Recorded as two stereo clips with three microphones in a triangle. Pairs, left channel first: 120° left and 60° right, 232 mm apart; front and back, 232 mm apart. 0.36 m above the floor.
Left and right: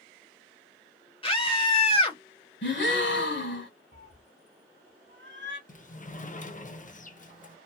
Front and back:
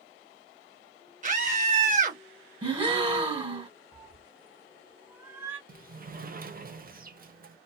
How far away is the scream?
About 1.5 m.